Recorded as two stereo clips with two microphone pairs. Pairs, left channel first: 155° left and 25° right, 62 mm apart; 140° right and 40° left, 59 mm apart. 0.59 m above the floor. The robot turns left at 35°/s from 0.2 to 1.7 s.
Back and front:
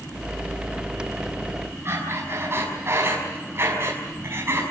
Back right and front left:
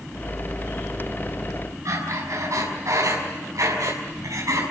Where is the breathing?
20° left, 6 m.